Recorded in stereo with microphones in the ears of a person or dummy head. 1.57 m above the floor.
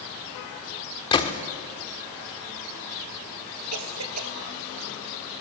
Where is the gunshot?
20° left (ahead or behind), 1.5 m.